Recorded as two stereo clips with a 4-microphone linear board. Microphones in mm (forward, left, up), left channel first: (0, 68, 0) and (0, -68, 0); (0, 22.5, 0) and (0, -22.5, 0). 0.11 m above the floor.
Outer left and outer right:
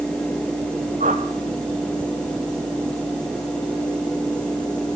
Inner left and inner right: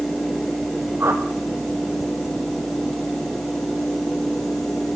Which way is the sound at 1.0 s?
70° right (ahead or behind).